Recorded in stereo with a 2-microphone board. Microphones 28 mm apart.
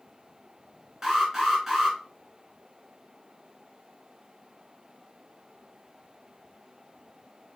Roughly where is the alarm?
Centre.